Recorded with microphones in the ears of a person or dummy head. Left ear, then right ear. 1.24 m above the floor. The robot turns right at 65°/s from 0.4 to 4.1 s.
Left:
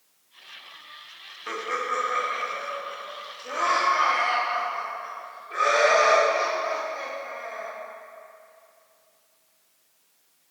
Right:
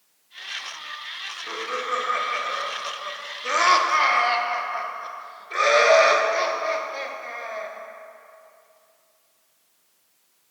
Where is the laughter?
20° left (ahead or behind), 0.7 m; by 7.7 s 25° right (ahead or behind), 0.7 m.